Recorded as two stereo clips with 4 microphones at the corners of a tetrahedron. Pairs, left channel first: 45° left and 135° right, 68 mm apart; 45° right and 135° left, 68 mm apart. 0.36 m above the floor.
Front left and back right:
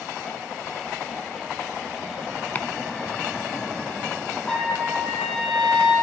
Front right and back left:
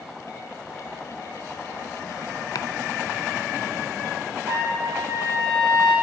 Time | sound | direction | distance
2.5 | chopping | 20° right | 0.7 m
4.5 | a trumpet | 120° left | 5.5 m